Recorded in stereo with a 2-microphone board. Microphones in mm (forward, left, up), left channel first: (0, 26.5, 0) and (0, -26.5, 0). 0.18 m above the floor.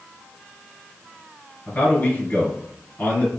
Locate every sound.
1.7 s a man speaking: 35° left (ahead or behind), 2.5 m